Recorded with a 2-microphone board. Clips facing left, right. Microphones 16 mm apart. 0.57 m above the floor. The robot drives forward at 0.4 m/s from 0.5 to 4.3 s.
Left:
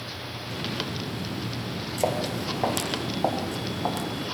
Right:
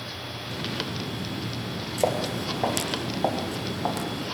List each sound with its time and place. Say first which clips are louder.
2.0 s footsteps: right 1 dB; 15° right (ahead or behind), 5.5 m; by 4.1 s 5° right (ahead or behind), 5.5 m